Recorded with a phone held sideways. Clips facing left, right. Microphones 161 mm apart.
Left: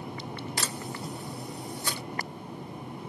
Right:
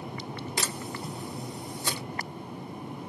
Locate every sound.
0.6 s a camera shutter: 20° right (ahead or behind), 1.9 m